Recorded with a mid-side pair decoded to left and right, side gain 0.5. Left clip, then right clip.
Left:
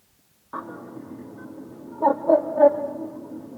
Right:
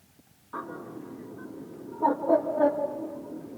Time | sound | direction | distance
0.5 | a bird | 40° left | 3 m